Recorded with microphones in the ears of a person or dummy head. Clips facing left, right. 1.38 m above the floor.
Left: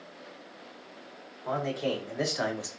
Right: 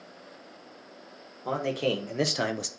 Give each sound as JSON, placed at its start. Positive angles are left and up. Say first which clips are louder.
{"t": 1.4, "sound": "a man speaking", "louder": "right 2 dB", "side_deg": -40, "distance_m": 1.4}